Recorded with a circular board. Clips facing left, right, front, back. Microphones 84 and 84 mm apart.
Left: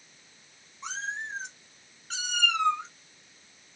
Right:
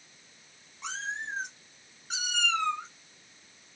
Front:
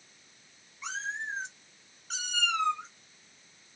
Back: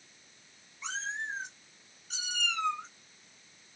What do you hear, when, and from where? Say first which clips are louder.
0.8 s a cat meowing: left 1 dB, front 1 dB; 85° right, 1.5 m; by 2.9 s 25° left, 1.2 m